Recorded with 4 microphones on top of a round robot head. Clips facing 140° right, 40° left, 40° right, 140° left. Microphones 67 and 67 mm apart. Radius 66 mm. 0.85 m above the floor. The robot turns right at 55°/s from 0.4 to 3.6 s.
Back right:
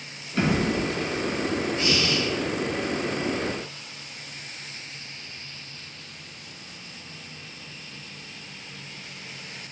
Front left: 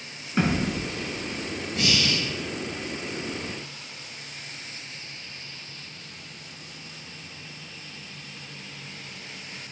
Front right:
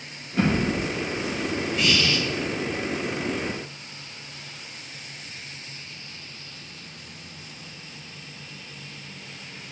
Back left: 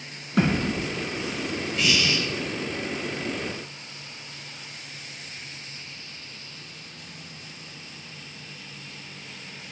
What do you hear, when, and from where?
0.4 s a thud: 115° left, 1.5 m; by 0.8 s 135° left, 1.5 m
1.8 s breathing: 50° left, 0.7 m; by 2.2 s 75° left, 0.7 m